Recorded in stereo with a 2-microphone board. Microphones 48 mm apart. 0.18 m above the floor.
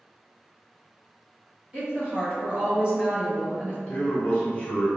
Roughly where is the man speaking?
Centre.